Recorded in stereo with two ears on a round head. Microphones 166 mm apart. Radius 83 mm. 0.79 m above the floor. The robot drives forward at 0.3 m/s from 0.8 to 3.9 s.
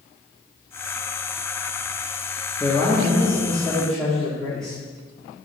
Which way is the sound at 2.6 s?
5° left (ahead or behind).